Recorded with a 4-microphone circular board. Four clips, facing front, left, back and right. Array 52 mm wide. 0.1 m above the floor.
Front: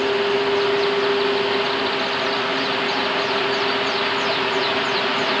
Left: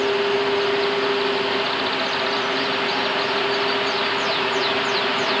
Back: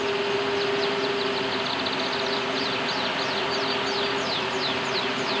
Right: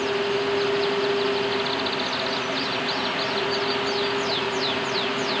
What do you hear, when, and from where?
Only background noise.